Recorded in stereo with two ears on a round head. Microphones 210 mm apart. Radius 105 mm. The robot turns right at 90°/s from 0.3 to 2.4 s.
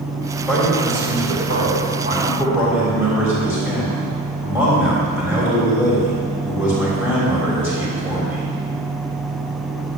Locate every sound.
0.5 s a man speaking: straight behind, 3.5 m; by 8.5 s 10° right, 3.5 m